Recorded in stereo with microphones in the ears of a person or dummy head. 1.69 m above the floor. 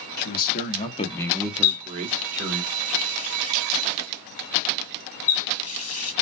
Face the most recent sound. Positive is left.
turn(degrees=35)  # may be behind; listen again after turning